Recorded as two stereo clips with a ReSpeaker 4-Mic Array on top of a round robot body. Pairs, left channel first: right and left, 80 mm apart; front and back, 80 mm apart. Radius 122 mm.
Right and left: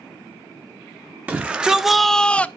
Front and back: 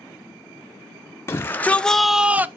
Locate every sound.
1.3 s a shout: 30° left, 0.8 m; by 2.5 s 145° right, 0.7 m